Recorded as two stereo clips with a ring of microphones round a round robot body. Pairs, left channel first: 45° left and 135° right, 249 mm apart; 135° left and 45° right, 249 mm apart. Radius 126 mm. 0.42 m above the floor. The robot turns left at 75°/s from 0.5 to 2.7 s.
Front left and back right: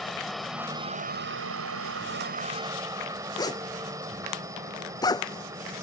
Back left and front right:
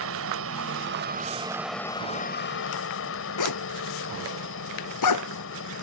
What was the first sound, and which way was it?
A helicopter, 45° right.